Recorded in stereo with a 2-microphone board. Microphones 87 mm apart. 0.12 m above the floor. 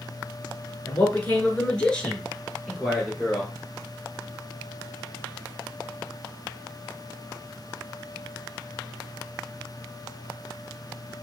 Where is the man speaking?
20° left (ahead or behind), 1.3 m; by 3.5 s 5° left (ahead or behind), 2.5 m.